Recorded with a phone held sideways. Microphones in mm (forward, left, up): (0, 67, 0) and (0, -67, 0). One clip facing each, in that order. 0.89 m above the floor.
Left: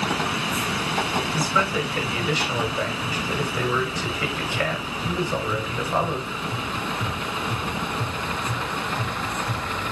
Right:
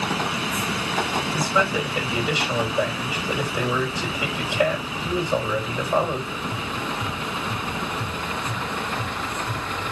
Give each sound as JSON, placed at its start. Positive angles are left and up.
{"t": 1.3, "sound": "a man speaking", "side_deg": -20, "distance_m": 5.5}